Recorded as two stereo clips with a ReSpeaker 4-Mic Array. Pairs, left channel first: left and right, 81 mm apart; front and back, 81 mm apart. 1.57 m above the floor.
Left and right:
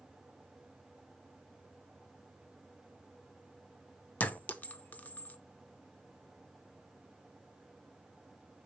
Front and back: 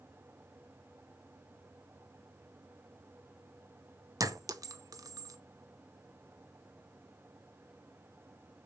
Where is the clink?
155° left, 0.7 m.